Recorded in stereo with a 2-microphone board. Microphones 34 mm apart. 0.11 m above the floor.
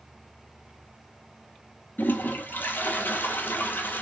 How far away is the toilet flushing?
About 0.6 m.